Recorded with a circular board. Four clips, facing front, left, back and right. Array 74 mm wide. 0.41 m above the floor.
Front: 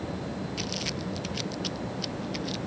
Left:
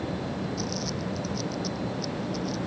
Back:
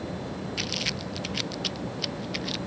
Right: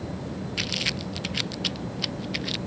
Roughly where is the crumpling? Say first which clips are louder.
Left 1 dB, even; right.